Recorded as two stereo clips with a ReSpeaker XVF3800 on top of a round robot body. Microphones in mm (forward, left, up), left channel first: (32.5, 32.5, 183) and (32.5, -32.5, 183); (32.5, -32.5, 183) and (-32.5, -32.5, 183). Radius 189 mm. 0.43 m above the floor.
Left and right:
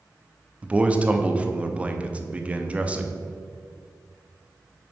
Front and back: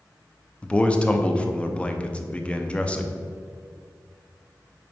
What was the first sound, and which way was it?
A man speaking, 45° right.